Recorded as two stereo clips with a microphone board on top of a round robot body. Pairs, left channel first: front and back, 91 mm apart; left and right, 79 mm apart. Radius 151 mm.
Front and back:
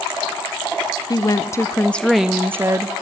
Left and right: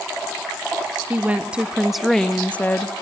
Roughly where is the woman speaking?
Ahead right.